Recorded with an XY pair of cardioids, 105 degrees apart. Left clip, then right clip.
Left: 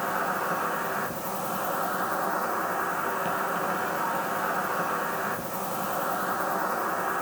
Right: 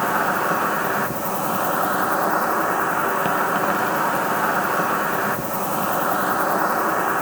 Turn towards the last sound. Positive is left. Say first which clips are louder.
# right 8 dB
turn(degrees=-60)